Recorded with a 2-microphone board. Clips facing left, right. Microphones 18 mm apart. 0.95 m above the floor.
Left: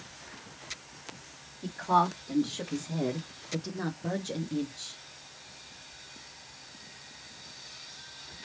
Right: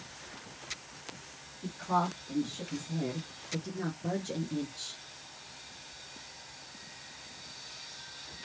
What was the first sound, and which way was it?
A woman speaking, 85° left.